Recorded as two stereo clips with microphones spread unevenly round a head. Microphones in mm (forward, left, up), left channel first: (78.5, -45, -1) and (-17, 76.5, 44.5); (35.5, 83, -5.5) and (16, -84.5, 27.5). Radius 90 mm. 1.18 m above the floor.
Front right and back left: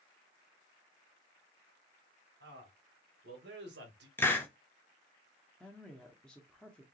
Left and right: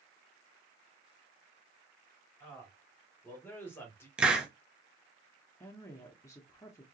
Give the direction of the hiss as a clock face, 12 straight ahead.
12 o'clock.